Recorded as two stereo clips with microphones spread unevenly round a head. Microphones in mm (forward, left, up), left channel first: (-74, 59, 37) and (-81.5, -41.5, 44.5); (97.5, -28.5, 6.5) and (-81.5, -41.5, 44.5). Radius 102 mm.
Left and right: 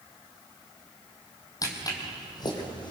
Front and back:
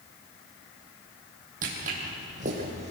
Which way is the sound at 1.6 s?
140° left.